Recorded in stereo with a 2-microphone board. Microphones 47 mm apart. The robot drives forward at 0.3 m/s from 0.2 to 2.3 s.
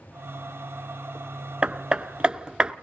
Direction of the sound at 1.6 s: 25° right (ahead or behind).